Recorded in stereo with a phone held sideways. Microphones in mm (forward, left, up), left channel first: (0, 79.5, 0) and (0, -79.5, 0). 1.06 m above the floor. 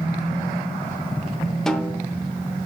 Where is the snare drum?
5° left (ahead or behind), 0.9 m.